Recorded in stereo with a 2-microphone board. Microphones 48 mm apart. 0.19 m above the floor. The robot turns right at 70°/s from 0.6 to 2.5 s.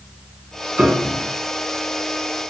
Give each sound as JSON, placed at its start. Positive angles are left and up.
{"t": 0.8, "sound": "a piano", "azimuth_deg": -135, "distance_m": 1.9}